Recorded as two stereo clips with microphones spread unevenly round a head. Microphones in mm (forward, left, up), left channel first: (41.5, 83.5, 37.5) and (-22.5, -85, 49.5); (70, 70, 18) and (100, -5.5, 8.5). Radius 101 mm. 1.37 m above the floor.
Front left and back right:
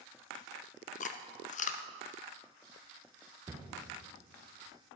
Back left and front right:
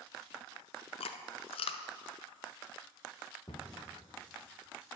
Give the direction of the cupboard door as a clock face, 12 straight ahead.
6 o'clock.